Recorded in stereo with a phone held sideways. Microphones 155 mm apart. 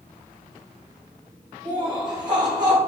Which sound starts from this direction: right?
Laughter, at 1.6 s.